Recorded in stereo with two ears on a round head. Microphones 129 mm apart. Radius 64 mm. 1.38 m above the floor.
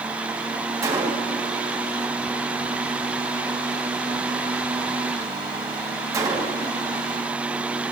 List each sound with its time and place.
0.8 s a gunshot: 25° right (ahead or behind), 1.4 m